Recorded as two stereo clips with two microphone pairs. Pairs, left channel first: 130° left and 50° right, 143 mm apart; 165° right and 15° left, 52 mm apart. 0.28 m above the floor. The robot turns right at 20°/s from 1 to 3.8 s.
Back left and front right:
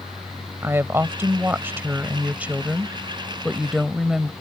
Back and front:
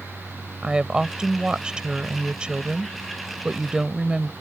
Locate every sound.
0.6 s a woman speaking: 25° right; by 4.3 s 30° left